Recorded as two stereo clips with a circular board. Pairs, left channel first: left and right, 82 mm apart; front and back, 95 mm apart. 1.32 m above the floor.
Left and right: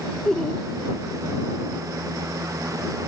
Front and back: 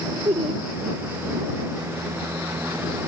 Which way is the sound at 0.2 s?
170° left.